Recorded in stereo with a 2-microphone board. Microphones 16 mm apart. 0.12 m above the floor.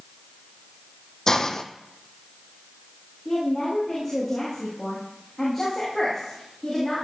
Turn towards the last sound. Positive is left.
turn(degrees=5)  # may be behind; listen again after turning